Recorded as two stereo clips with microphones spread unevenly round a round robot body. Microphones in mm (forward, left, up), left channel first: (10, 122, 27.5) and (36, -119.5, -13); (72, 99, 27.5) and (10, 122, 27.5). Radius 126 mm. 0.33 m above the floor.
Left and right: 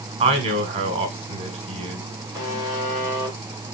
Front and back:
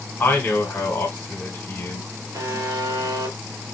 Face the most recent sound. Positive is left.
turn(degrees=135)